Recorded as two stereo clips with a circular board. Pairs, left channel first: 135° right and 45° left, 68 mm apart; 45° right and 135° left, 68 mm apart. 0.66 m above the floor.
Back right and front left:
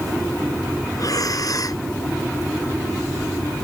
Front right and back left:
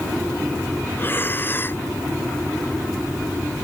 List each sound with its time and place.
1.0 s breathing: 105° right